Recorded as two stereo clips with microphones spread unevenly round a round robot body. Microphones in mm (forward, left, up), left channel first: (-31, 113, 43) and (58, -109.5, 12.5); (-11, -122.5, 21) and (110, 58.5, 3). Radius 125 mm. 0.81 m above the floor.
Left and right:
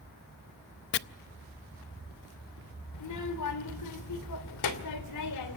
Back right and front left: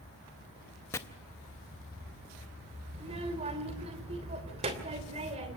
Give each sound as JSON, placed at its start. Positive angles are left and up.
{"t": 0.9, "sound": "chopping", "azimuth_deg": 155, "distance_m": 0.5}
{"t": 2.9, "sound": "a child speaking", "azimuth_deg": 125, "distance_m": 2.5}